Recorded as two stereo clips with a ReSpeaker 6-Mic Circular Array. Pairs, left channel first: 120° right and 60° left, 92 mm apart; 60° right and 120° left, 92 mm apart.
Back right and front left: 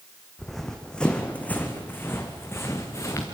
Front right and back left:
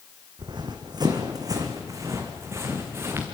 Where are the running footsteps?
150° left, 1.9 m; by 3.3 s 175° right, 3 m.